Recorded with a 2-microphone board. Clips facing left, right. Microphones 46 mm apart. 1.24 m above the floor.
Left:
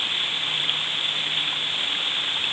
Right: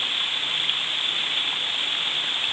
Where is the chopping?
No chopping in this recording.